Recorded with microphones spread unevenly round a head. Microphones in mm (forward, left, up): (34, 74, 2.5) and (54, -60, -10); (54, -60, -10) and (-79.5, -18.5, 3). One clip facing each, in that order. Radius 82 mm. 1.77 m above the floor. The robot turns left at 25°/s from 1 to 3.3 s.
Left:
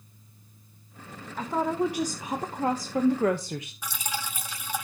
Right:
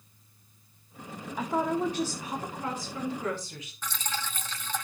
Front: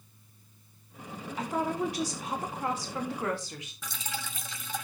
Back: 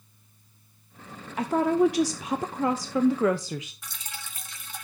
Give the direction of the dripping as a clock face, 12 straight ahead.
11 o'clock.